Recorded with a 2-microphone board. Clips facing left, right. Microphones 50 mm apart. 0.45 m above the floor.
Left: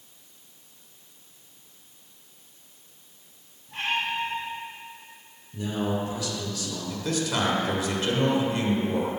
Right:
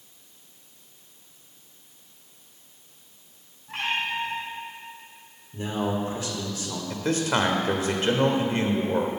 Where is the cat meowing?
80° right, 2.5 m.